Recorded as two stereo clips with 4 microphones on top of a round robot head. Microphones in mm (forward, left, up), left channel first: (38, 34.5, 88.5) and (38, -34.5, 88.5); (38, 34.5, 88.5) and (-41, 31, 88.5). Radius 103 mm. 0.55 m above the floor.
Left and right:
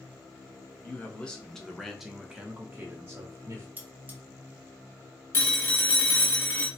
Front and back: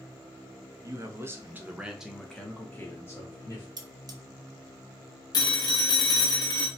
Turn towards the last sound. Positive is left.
turn(degrees=35)